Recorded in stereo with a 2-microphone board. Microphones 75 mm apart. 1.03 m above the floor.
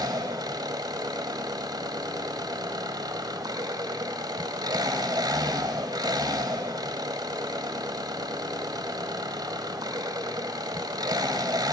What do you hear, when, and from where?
0.0 s an engine running: 65° right (ahead or behind), 1.6 m